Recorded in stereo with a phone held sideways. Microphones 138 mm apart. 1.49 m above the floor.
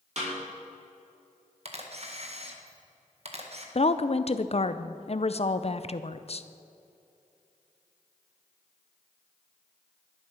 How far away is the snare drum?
About 5 m.